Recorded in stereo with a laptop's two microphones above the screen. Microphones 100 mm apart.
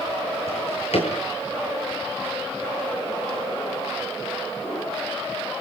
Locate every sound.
0.5 s a drawer: 70° left (ahead or behind), 8.5 m